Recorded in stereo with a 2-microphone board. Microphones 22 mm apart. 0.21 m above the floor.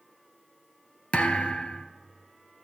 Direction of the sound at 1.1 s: 70° left (ahead or behind).